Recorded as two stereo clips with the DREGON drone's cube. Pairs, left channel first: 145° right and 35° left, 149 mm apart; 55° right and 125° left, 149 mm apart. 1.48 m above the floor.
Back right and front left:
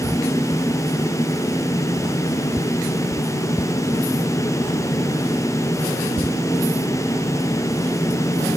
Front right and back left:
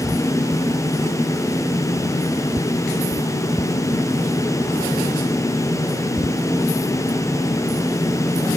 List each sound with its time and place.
Only background noise.